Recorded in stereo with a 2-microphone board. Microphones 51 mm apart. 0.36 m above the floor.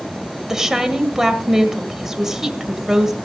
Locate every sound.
0.5 s a woman speaking: 10° right (ahead or behind), 1.7 m